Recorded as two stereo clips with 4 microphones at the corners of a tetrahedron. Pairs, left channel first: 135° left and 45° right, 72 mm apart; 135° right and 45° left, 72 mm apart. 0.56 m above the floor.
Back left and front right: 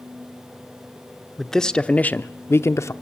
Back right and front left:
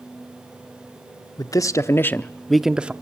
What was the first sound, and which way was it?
A man speaking, 140° right.